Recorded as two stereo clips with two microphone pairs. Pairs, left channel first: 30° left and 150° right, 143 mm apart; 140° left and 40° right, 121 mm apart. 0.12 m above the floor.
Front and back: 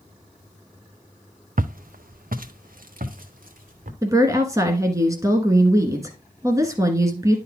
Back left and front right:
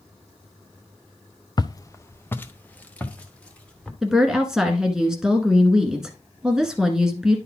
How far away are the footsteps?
About 0.5 m.